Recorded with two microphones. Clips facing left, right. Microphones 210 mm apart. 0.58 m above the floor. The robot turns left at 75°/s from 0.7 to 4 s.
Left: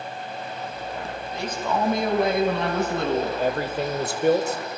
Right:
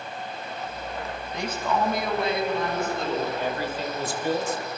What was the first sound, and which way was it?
A man speaking, 160° right.